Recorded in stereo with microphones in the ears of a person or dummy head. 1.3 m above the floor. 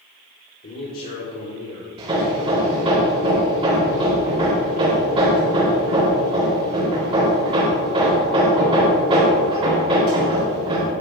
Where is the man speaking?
50° left (ahead or behind), 3.5 m.